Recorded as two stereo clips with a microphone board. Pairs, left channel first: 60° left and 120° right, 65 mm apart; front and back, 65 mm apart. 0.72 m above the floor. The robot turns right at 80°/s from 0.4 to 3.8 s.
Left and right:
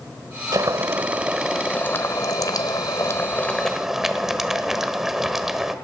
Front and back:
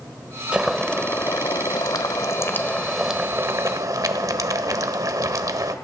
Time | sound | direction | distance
0.5 | boiling | 105° right | 1.3 m